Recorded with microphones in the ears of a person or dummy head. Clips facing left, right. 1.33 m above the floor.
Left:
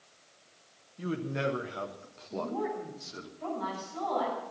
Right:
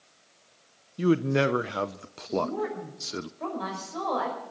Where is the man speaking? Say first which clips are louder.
Right 10 dB; 70° right (ahead or behind), 0.6 m.